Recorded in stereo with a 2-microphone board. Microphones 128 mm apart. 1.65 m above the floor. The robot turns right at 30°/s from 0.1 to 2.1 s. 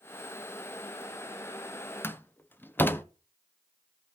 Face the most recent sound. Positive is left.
turn(degrees=15)  # may be behind; listen again after turning